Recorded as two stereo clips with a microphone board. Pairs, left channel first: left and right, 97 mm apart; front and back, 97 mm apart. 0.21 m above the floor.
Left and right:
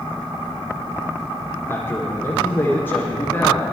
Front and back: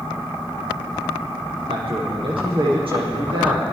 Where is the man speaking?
160° left, 7.5 m.